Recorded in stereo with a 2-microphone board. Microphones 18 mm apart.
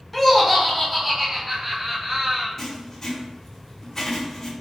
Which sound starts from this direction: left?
Writing, at 2.6 s.